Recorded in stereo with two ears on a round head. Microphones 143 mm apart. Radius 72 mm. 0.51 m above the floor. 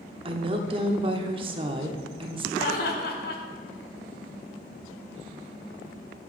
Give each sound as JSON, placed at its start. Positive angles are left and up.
{"t": 0.2, "sound": "a woman speaking", "side_deg": -35, "distance_m": 0.9}
{"t": 2.6, "sound": "laughter", "side_deg": 60, "distance_m": 1.7}